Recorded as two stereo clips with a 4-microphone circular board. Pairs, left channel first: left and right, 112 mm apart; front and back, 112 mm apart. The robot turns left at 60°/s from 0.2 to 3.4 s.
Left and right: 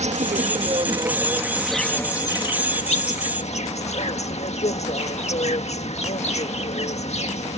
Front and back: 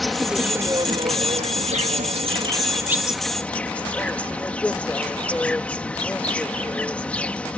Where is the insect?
90° right; by 7.6 s 75° left.